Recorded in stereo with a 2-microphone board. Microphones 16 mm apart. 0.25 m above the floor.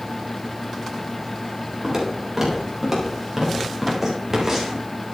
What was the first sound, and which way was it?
Footsteps, 15° right (ahead or behind).